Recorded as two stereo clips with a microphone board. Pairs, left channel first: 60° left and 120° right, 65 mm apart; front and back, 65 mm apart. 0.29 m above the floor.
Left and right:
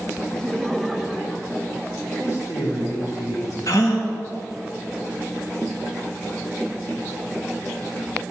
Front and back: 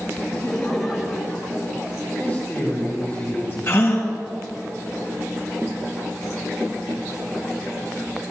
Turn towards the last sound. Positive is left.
turn(degrees=45)